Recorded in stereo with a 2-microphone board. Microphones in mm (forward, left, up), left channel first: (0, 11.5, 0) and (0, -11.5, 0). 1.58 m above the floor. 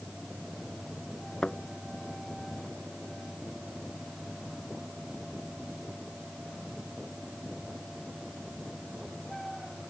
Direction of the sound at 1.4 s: 35° left (ahead or behind).